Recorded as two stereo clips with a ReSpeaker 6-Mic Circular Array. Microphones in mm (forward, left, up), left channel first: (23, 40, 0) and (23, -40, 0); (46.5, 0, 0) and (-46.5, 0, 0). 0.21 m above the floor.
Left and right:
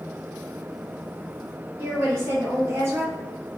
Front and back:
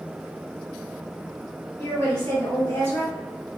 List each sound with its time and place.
1.8 s a woman speaking: 65° right, 1.8 m